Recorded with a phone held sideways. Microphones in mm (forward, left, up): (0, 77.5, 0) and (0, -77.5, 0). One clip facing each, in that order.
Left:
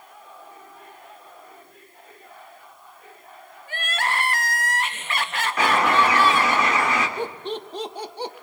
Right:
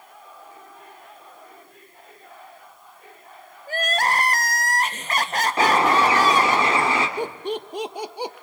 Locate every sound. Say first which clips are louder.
3.7 s crying: right 4 dB; 40° right (ahead or behind), 0.9 m
5.6 s a bird: right 1 dB; 30° right (ahead or behind), 3 m
7.2 s laughter: right 2 dB; 10° right (ahead or behind), 1.0 m